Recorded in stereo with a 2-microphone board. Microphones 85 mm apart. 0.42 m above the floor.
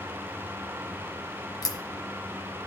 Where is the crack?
45° left (ahead or behind), 0.8 m.